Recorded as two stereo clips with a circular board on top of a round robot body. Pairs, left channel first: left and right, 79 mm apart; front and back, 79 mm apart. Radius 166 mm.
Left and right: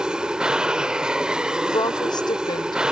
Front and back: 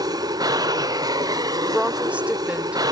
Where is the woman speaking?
105° left.